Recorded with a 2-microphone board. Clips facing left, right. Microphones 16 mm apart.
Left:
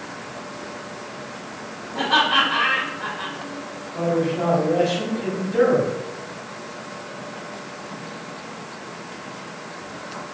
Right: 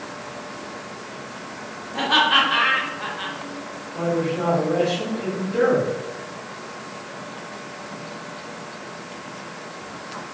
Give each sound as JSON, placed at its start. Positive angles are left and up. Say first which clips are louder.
{"t": 1.9, "sound": "laughter", "louder": "right 1 dB", "side_deg": -25, "distance_m": 0.7}
{"t": 3.9, "sound": "a man speaking", "louder": "left 1 dB", "side_deg": 20, "distance_m": 1.6}